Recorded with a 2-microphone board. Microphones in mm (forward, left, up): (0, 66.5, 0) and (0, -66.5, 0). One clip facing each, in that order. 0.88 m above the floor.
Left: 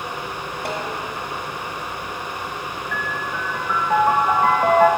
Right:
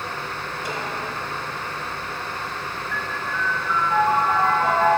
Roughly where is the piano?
Left.